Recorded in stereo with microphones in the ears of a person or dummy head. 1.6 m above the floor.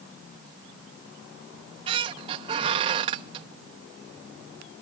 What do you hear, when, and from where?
1.5 s a squeak: 30° right (ahead or behind), 1.0 m